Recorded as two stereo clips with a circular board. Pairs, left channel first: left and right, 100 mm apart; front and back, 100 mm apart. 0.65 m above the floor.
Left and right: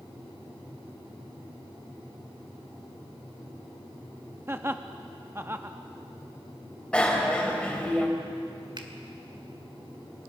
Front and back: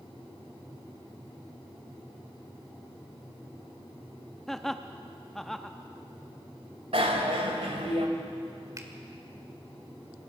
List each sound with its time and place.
4.5 s laughter: 80° right, 0.7 m
6.9 s a bicycle bell: 170° left, 2.5 m
8.8 s a finger snap: 125° right, 1.9 m